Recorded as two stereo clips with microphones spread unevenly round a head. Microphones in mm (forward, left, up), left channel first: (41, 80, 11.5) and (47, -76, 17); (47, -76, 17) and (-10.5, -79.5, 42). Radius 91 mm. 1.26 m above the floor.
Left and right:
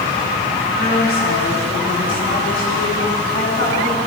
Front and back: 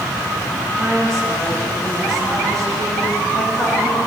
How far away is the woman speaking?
About 9 m.